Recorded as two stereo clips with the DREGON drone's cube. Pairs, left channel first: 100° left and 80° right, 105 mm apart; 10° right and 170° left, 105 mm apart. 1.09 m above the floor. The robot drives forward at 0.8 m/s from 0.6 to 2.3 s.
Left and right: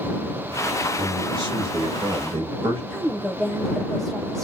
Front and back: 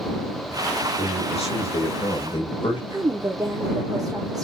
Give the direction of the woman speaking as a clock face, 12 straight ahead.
6 o'clock.